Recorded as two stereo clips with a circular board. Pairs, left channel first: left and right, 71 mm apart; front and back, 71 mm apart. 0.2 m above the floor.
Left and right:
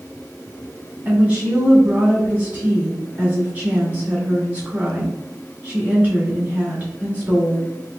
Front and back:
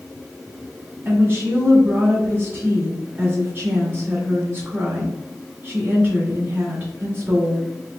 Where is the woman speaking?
145° right, 1.5 m.